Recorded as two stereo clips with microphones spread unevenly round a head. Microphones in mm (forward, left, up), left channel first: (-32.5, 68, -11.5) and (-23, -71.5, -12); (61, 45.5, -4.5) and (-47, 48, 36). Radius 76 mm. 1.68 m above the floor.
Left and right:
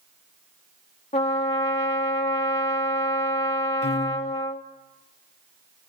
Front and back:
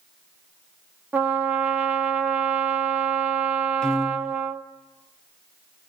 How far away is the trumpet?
About 1.6 m.